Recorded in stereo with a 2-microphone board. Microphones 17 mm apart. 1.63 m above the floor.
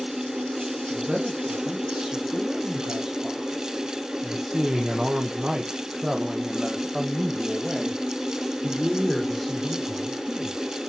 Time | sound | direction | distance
0.9 | a man speaking | 60° right (ahead or behind) | 3 m